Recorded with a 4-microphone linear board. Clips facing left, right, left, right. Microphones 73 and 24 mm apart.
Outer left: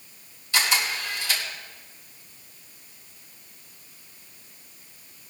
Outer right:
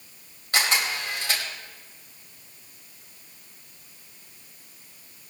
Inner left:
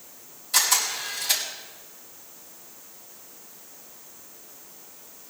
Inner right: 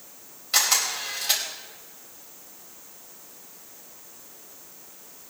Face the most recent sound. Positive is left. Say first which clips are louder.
# even, even
turn(degrees=-55)  # may be behind; listen again after turning